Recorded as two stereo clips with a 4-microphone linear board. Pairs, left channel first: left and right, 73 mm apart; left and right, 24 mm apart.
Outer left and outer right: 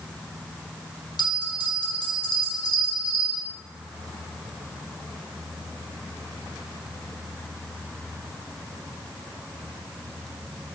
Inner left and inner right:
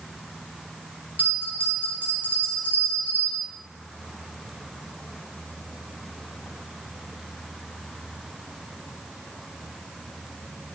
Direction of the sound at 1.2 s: 70° left (ahead or behind).